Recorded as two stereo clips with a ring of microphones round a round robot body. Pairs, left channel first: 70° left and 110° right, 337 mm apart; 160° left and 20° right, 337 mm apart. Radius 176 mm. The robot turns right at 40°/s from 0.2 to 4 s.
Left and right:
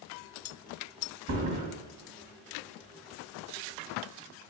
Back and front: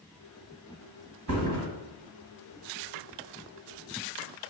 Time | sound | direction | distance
1.3 | a thud | 65° right | 1.6 m